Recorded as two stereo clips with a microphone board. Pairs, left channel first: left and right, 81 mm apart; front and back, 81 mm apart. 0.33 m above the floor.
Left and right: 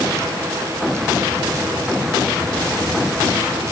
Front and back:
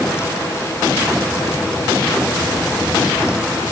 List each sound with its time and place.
Only background noise.